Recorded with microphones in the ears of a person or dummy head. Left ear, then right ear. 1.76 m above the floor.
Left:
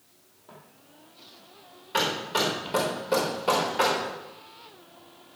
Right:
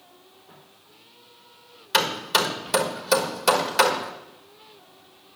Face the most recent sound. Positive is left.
turn(degrees=-55)  # may be behind; listen again after turning